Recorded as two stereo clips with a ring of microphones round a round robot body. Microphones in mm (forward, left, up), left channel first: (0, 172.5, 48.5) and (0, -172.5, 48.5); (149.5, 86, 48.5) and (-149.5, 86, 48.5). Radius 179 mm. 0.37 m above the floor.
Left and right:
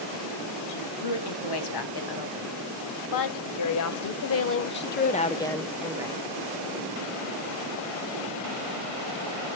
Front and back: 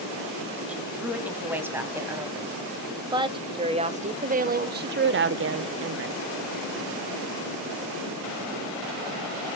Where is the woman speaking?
95° left, 3 m; by 6.2 s 160° right, 1.0 m.